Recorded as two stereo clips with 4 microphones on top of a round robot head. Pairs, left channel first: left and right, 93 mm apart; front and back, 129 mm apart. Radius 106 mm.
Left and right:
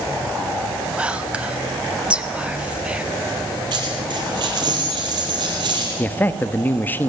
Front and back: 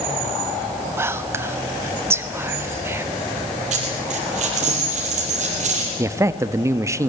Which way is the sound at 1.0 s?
145° right.